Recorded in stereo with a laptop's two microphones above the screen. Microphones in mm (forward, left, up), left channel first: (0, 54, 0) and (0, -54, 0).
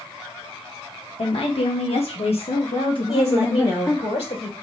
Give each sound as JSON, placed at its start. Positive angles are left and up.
{"t": 1.2, "sound": "a woman speaking", "side_deg": 65, "distance_m": 1.3}
{"t": 3.1, "sound": "a woman speaking", "side_deg": 75, "distance_m": 3.0}